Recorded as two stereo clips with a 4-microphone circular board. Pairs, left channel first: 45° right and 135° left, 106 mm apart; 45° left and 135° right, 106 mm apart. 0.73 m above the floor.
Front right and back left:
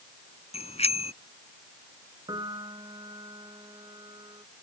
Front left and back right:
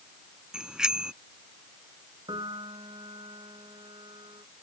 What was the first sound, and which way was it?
A bicycle bell, 50° right.